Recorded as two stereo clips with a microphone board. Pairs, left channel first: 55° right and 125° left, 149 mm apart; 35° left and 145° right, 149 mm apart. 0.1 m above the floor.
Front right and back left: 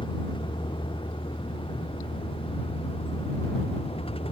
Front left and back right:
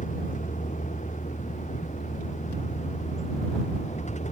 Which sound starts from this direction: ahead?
A vehicle, at 0.0 s.